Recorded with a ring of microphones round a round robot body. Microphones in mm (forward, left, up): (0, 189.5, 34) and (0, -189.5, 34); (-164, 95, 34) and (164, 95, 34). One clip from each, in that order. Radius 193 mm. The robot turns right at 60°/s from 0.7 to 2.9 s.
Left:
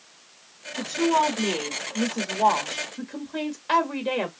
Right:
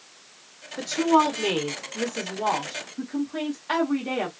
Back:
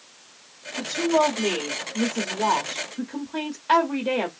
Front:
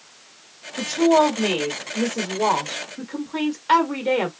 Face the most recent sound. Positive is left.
turn(degrees=55)